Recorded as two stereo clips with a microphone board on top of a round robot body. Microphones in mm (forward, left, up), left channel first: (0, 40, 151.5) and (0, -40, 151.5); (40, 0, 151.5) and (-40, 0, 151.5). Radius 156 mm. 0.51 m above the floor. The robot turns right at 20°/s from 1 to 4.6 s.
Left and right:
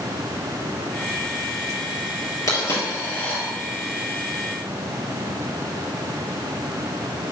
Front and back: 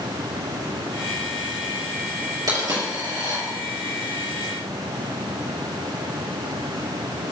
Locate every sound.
2.5 s a dropped coin: 140° left, 3.5 m; by 3.4 s 155° left, 3.5 m